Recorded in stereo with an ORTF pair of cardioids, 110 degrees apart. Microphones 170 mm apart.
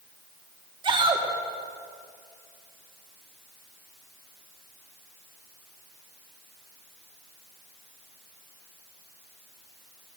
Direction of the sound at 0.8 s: 30° right.